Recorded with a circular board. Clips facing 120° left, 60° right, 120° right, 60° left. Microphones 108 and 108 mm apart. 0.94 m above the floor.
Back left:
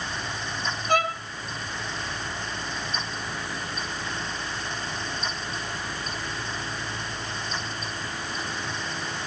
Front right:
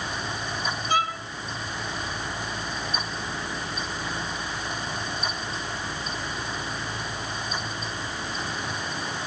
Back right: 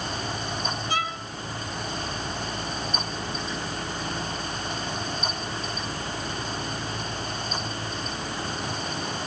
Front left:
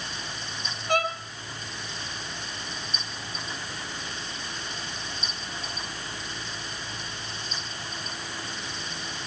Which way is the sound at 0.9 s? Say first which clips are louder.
Back left 2 dB, front left 6 dB; 85° left.